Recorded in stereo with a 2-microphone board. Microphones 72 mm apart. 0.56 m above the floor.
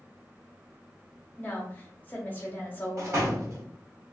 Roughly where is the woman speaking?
Left.